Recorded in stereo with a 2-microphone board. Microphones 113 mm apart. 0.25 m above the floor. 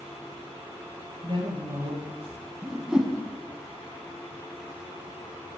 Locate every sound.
1.2 s a woman speaking: 50° right (ahead or behind), 3 m
2.6 s a whoosh: 5° right (ahead or behind), 1.2 m